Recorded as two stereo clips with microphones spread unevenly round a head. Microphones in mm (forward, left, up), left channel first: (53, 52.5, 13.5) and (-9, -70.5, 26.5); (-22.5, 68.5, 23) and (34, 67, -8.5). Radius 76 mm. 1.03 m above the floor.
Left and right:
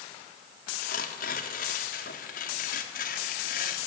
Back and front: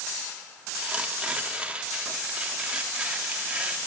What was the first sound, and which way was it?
Tearing paper, 65° left.